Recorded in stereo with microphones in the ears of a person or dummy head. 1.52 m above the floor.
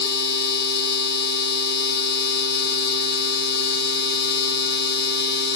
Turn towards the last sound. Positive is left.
turn(degrees=60)  # may be behind; listen again after turning